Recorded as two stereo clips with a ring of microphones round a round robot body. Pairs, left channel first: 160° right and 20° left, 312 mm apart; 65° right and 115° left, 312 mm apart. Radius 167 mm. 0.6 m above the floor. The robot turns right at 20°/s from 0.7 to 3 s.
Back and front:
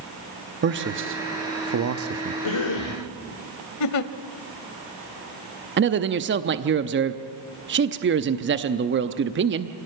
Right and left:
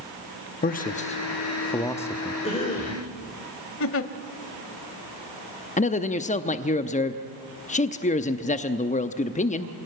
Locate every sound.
0.6 s a man speaking: 15° right, 0.9 m; by 2.3 s 20° left, 0.9 m
2.4 s a cough: 140° right, 1.9 m; by 3.0 s 130° right, 1.9 m
3.8 s a giggle: 120° right, 0.8 m
5.8 s a man speaking: 10° right, 0.8 m